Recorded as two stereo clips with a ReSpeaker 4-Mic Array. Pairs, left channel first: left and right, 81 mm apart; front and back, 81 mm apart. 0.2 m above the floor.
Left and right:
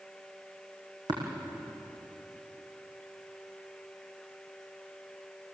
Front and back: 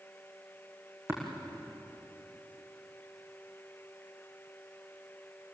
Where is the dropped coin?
No dropped coin in this recording.